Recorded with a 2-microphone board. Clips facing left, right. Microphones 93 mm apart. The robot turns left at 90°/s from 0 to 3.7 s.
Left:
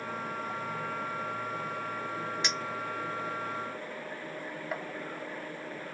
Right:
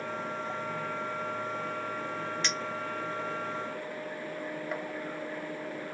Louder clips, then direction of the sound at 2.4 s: Even; 15° left (ahead or behind).